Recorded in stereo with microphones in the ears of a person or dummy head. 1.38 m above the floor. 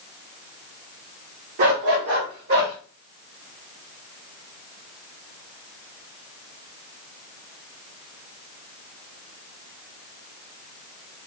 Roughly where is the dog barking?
Right.